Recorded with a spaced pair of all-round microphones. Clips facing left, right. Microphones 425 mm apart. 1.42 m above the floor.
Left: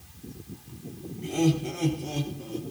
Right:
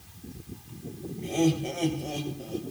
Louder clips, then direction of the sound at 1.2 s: Even; 30° left (ahead or behind).